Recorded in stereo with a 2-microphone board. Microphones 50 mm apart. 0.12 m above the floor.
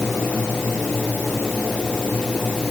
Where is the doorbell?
I don't hear a doorbell.